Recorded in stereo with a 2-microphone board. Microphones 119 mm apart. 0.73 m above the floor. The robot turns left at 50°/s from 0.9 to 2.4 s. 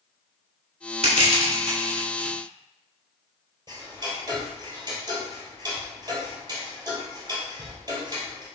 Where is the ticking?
35° right (ahead or behind), 3 m.